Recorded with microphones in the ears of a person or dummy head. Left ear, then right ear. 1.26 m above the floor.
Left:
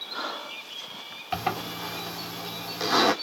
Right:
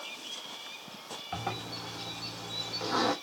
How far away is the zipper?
About 3.5 m.